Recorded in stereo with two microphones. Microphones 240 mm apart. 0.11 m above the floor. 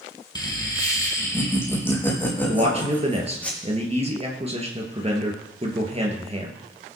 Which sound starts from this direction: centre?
Laughter, at 0.3 s.